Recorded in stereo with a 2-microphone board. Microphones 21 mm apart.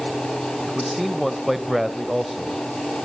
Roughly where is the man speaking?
Centre.